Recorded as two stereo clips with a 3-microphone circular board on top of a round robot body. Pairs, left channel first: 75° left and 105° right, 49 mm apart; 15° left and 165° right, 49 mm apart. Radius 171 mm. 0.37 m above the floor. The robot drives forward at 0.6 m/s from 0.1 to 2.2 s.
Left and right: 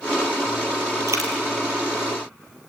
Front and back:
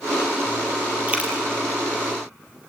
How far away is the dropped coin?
About 4.5 m.